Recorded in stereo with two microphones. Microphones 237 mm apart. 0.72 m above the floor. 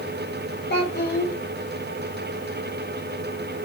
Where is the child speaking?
45° left (ahead or behind), 1.0 m.